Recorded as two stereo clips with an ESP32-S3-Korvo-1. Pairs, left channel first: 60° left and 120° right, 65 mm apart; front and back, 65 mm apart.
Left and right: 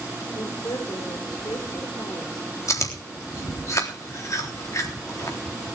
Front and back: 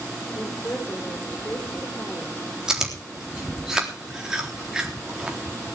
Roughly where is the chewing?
Left.